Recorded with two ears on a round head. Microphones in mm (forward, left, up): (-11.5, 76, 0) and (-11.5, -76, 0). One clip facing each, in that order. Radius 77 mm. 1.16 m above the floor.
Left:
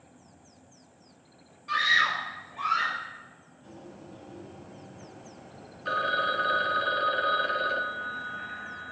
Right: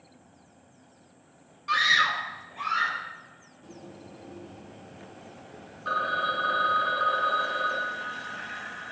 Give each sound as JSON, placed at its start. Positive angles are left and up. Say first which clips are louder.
{"t": 1.7, "sound": "a scream", "louder": "right 2 dB", "side_deg": -60, "distance_m": 0.7}
{"t": 3.6, "sound": "a bird", "louder": "right 1 dB", "side_deg": -35, "distance_m": 1.3}
{"t": 5.8, "sound": "a phone ringing", "louder": "left 1 dB", "side_deg": 25, "distance_m": 0.5}